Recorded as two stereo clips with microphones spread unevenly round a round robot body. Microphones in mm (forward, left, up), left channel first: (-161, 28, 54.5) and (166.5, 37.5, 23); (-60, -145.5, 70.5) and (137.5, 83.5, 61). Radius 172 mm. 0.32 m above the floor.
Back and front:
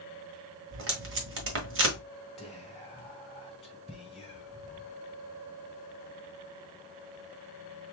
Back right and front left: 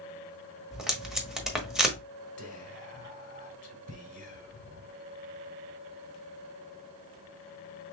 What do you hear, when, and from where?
0.7 s tape being pulled: 40° right, 1.3 m
2.4 s whispering: 85° right, 1.7 m